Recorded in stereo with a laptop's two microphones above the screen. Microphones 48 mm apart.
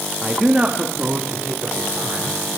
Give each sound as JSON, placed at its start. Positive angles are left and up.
{"t": 0.2, "sound": "a man speaking", "side_deg": -10, "distance_m": 2.0}